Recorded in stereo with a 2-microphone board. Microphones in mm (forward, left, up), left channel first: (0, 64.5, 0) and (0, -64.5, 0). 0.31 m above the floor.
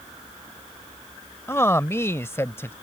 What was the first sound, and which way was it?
A man speaking, 20° left (ahead or behind).